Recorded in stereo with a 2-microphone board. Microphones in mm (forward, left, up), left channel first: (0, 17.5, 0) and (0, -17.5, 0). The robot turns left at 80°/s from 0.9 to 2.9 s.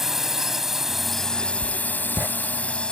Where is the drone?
170° right; by 2.9 s 30° left.